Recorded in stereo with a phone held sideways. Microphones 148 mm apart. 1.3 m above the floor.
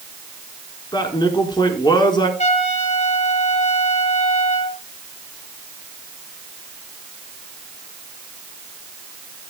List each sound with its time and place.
0.9 s a man speaking: 30° left (ahead or behind), 4.5 m
2.4 s a trumpet: 50° left (ahead or behind), 4.5 m